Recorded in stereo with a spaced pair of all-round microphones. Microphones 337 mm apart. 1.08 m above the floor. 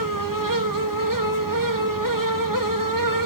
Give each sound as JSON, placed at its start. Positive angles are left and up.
{"t": 0.0, "sound": "a fan", "side_deg": -70, "distance_m": 2.0}